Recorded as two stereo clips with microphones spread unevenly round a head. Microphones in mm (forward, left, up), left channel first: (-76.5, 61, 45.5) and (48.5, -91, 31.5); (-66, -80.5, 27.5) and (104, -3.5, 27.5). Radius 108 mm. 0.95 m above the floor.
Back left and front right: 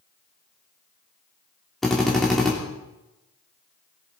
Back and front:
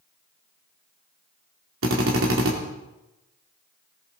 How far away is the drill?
About 3 m.